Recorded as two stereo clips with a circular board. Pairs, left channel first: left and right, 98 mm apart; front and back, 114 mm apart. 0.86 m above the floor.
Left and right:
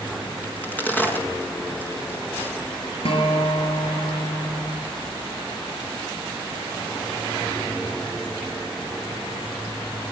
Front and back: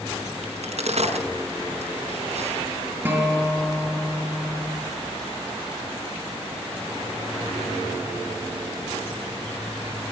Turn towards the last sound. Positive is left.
turn(degrees=105)